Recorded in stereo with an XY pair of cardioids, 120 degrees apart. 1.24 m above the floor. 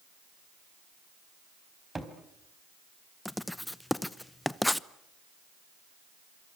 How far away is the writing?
About 0.7 m.